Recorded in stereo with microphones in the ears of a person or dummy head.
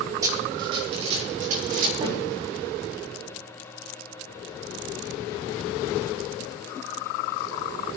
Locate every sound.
0.2 s running footsteps: 20° right (ahead or behind), 3 m; by 1.9 s 60° right (ahead or behind), 3.5 m
2.0 s a snare drum: 20° right (ahead or behind), 7 m